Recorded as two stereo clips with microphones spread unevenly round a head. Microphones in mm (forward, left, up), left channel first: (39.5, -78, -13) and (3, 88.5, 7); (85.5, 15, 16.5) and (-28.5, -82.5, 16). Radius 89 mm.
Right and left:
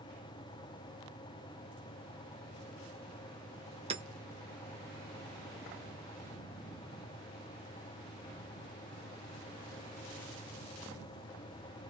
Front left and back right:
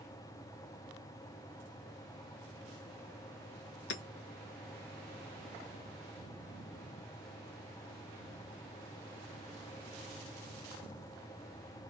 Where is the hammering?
40° left, 1.1 m.